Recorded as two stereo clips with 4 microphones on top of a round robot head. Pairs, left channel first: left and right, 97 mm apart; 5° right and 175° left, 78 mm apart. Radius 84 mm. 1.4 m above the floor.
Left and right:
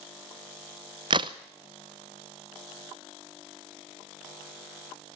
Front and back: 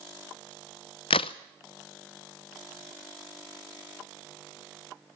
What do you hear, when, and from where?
1.1 s a crack: 35° right, 0.6 m